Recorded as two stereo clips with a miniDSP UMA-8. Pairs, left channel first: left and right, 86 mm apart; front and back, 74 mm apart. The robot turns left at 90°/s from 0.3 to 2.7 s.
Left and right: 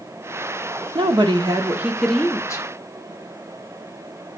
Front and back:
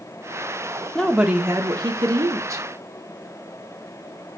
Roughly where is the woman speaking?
Right.